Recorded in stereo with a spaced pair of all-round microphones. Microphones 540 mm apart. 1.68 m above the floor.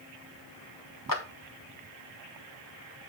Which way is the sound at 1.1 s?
35° left (ahead or behind).